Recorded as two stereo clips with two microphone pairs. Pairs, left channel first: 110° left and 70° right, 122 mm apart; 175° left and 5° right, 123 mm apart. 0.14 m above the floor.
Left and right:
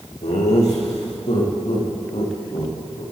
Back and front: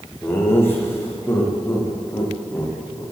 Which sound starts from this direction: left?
Laughter, at 0.2 s.